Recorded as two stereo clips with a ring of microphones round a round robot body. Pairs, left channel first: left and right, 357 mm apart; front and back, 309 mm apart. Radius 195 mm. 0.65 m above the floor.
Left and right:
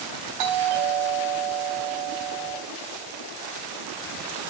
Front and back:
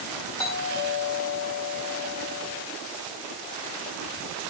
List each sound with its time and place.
0.4 s a doorbell: 75° right, 6 m